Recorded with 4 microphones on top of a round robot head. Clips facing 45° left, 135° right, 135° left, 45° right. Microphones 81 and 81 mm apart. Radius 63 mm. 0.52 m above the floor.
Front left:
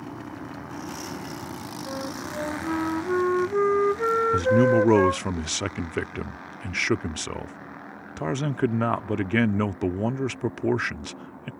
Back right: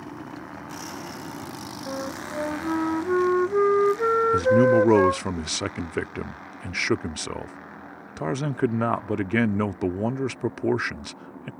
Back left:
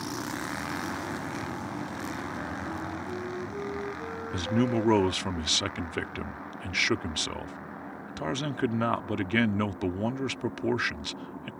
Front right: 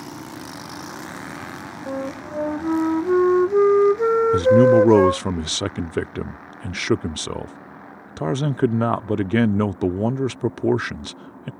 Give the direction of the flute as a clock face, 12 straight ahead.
2 o'clock.